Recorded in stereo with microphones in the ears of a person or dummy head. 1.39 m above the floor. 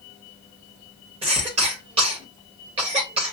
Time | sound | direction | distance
1.2 | a cough | 35° right (ahead or behind) | 1.7 m